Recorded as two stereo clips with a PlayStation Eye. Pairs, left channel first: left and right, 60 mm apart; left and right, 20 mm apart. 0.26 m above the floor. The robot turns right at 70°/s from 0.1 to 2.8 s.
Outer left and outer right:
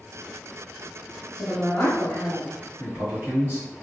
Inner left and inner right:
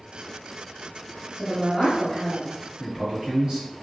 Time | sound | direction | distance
1.4 | a woman speaking | 20° left (ahead or behind) | 0.9 m
2.8 | a man speaking | 45° right (ahead or behind) | 1.8 m